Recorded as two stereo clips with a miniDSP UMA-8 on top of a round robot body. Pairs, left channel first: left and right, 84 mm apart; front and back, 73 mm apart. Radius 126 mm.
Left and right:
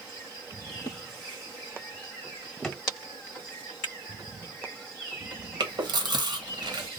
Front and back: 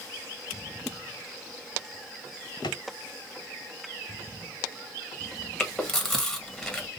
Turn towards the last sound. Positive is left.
turn(degrees=-85)